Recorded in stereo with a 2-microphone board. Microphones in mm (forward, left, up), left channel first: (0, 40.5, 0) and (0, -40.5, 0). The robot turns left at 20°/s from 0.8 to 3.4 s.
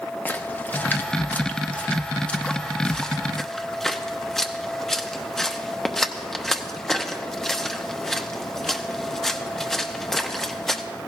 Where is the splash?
20° left (ahead or behind), 0.6 m; by 10.8 s 5° left (ahead or behind), 0.6 m.